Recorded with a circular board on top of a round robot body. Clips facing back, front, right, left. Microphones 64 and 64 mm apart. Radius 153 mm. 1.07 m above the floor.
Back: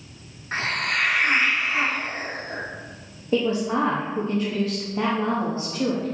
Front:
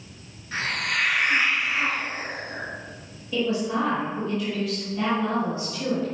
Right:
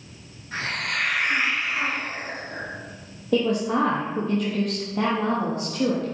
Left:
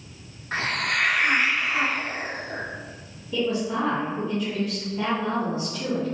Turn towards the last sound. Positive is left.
turn(degrees=-125)